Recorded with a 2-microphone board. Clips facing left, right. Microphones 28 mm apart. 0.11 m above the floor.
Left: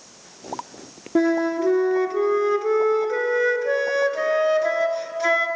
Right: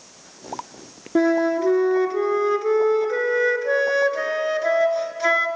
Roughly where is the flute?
Centre.